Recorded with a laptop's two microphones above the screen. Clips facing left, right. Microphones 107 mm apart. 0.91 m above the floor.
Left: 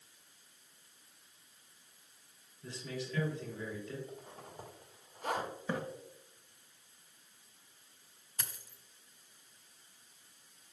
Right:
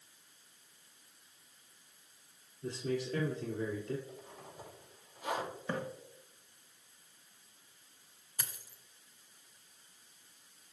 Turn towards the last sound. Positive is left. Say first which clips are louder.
# even
turn(degrees=-10)  # may be behind; listen again after turning